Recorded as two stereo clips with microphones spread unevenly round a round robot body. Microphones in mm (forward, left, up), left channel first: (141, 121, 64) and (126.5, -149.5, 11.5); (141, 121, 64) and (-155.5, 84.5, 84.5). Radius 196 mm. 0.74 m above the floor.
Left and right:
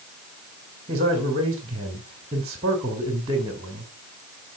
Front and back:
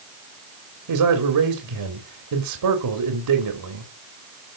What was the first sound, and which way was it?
A man speaking, 160° right.